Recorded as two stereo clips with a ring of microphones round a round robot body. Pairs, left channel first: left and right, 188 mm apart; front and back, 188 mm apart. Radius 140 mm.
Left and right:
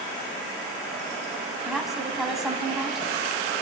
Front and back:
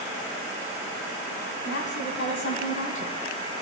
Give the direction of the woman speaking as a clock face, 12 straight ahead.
12 o'clock.